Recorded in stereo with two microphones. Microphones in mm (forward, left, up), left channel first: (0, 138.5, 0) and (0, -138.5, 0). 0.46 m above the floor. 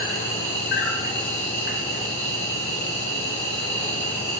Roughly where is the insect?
Left.